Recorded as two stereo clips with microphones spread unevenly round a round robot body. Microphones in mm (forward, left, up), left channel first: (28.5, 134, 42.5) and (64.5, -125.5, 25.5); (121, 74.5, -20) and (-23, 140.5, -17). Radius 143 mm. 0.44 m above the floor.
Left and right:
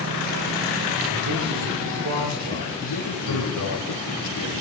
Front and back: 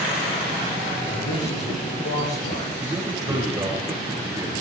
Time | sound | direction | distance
1.1 | a man speaking | 65° right | 7.5 m
2.8 | a man speaking | 85° left | 6 m